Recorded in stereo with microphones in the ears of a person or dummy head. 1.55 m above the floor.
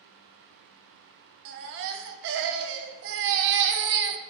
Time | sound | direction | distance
1.4 | a baby crying | 65° right (ahead or behind) | 0.7 m